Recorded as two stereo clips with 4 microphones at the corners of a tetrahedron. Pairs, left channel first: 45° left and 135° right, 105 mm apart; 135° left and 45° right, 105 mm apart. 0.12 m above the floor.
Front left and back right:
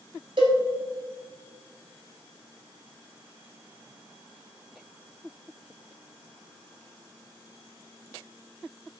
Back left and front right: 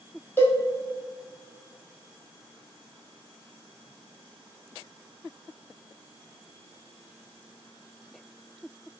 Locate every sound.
0.4 s a cowbell: 160° right, 1.1 m